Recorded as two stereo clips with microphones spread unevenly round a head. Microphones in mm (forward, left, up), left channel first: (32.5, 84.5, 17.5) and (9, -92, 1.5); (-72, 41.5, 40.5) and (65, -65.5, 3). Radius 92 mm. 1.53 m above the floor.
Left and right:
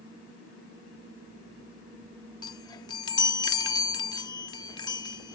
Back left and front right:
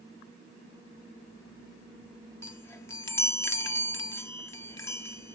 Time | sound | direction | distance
2.4 | a chime | 110° left | ?